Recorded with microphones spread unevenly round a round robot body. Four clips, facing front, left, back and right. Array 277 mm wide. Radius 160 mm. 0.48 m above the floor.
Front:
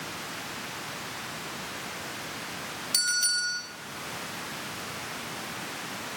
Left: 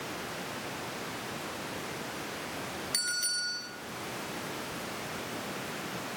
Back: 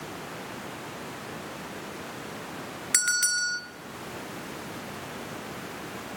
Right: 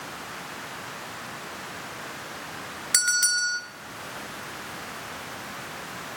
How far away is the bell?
About 1.6 m.